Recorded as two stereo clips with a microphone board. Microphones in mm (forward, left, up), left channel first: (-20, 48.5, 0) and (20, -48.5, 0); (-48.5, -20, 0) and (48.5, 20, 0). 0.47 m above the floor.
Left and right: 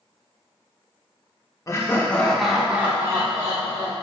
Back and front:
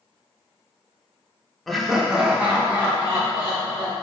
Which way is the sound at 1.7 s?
115° left.